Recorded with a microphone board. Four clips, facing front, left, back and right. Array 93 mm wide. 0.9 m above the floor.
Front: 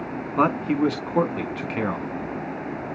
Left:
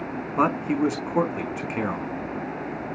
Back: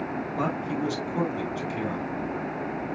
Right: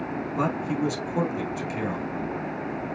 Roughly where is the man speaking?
Ahead left.